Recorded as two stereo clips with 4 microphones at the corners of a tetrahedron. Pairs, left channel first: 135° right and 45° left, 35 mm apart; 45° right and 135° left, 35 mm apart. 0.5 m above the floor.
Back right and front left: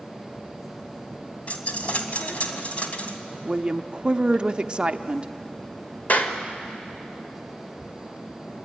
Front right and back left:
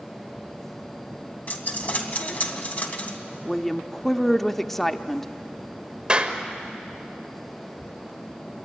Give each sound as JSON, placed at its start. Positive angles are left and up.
{"t": 1.5, "sound": "a dropped coin", "azimuth_deg": -85, "distance_m": 1.9}
{"t": 3.5, "sound": "a woman speaking", "azimuth_deg": 35, "distance_m": 0.7}
{"t": 6.1, "sound": "a clap", "azimuth_deg": -165, "distance_m": 1.7}